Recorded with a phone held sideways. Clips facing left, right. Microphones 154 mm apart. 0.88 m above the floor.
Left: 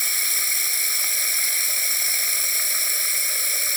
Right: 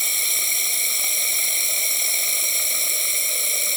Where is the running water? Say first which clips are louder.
Right 2 dB; 20° right (ahead or behind).